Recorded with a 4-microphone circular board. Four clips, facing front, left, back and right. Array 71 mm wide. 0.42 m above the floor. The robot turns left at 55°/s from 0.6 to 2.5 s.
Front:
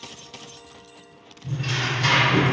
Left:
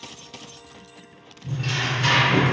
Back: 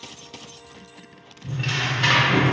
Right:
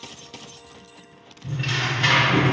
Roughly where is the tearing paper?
Right.